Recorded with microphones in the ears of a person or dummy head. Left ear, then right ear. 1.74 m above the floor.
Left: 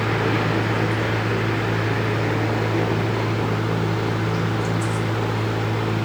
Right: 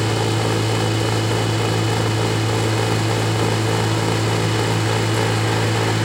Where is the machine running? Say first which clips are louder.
Right 1 dB; 80° right.